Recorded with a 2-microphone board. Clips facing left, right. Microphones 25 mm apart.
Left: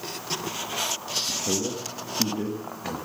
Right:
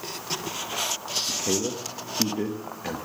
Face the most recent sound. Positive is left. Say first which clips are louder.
# right 2 dB
turn(degrees=-35)  # may be behind; listen again after turning